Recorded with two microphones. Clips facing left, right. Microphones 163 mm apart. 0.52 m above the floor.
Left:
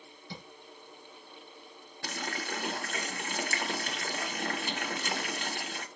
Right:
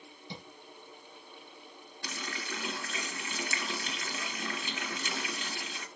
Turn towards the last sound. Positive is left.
turn(degrees=60)  # may be behind; listen again after turning